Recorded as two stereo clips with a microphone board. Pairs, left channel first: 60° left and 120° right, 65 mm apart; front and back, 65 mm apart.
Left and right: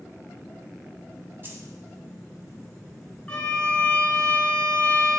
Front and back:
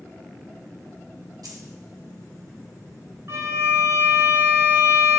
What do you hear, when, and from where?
1.4 s keys jangling: 175° right, 2.5 m
3.3 s a violin: 135° left, 1.5 m